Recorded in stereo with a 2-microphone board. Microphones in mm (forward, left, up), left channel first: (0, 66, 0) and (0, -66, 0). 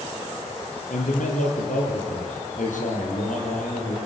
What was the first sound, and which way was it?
A man speaking, 75° left (ahead or behind).